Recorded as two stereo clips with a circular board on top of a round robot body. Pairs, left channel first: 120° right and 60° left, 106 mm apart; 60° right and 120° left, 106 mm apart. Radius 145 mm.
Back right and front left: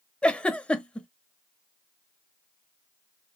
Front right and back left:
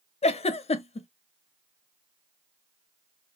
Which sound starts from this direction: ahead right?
A giggle, at 0.2 s.